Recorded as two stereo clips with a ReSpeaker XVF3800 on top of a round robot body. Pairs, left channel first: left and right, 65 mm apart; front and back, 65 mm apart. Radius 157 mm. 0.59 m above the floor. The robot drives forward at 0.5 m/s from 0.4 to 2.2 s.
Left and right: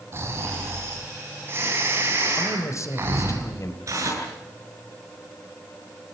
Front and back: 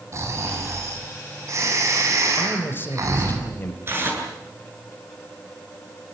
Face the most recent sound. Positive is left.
turn(degrees=-130)